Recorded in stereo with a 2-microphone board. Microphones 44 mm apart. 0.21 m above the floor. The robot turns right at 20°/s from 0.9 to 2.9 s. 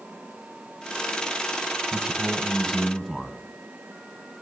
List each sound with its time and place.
1.9 s a man speaking: centre (ahead or behind), 1.7 m; by 3.4 s 15° left (ahead or behind), 1.7 m